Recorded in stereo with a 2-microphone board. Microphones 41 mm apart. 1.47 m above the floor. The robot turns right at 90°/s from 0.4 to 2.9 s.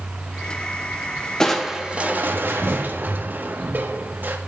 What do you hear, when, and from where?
1.4 s crushing: 165° left, 1.3 m; by 4.4 s 60° right, 1.3 m